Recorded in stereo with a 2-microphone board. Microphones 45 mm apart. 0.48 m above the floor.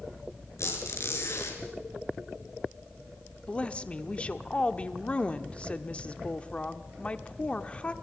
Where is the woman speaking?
25° left (ahead or behind), 1.0 m.